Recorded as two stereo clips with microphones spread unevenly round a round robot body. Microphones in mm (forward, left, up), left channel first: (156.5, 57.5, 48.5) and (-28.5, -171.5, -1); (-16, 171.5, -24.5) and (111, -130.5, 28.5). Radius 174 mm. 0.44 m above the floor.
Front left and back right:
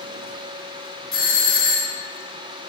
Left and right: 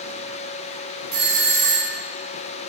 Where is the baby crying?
I don't hear a baby crying.